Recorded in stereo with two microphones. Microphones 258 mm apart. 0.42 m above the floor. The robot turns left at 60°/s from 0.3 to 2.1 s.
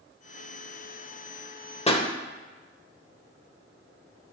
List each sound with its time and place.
1.9 s a pop: 25° left (ahead or behind), 0.7 m; by 2.1 s 15° left (ahead or behind), 0.7 m